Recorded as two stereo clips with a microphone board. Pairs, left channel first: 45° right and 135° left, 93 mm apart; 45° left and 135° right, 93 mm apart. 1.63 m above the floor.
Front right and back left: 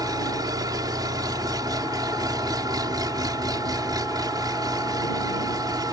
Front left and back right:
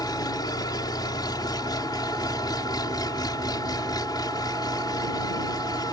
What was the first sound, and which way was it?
An engine running, 90° left.